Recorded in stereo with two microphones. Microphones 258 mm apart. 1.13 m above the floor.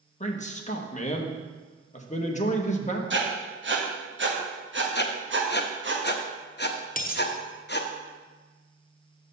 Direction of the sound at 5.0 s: 40° left (ahead or behind).